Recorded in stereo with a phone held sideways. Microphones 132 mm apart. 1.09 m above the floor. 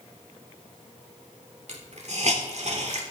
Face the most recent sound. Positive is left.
turn(degrees=-60)  # may be behind; listen again after turning